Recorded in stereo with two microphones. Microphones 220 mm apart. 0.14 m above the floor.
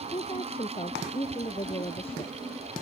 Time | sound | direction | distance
0.1 | a woman speaking | 25° left (ahead or behind) | ?